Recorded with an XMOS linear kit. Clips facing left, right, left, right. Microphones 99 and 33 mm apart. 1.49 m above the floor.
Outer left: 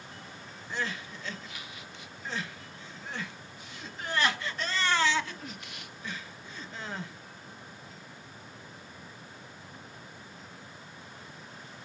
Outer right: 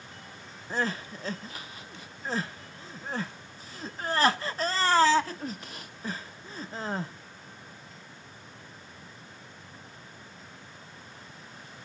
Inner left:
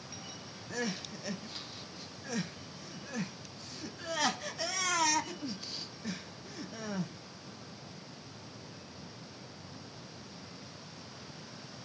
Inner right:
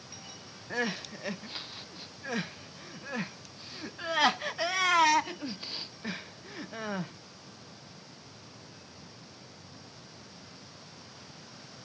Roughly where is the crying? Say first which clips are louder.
Outer right 5 dB, inner right 4 dB; right.